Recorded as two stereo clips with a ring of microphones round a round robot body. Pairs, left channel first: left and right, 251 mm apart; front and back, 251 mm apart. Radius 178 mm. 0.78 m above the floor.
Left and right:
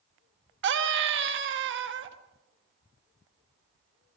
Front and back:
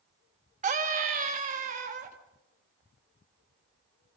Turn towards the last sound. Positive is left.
turn(degrees=-120)